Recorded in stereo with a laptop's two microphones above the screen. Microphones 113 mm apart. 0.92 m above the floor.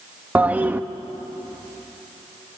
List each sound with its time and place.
0.3 s a toilet flushing: 15° right (ahead or behind), 0.6 m